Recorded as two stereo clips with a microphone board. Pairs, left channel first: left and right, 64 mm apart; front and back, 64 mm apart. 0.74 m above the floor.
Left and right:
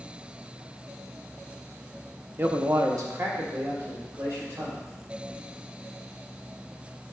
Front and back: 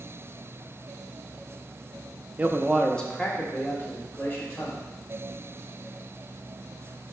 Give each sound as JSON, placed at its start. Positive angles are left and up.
{"t": 2.4, "sound": "a man speaking", "azimuth_deg": -130, "distance_m": 0.7}